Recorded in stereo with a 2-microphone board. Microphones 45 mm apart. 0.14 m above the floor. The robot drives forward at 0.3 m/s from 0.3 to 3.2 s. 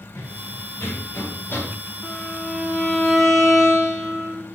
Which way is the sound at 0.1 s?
55° left (ahead or behind).